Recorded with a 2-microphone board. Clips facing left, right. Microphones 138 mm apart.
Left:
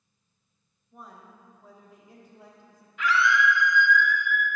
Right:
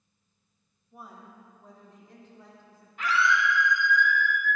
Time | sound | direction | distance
0.9 | a woman speaking | 5° right (ahead or behind) | 1.6 m
3.0 | a scream | 45° right (ahead or behind) | 1.6 m